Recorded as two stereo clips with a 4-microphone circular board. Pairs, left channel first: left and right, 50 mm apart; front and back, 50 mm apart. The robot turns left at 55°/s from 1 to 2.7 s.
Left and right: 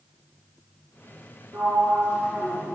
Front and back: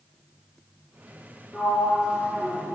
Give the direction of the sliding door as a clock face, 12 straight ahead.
3 o'clock.